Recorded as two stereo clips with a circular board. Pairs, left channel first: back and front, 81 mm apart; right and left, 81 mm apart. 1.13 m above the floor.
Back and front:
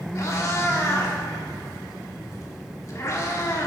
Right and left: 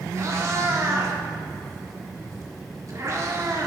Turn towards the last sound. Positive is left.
turn(degrees=135)